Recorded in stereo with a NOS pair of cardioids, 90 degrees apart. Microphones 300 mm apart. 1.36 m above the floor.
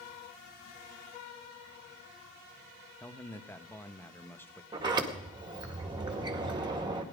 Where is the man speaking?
5° left, 1.2 m.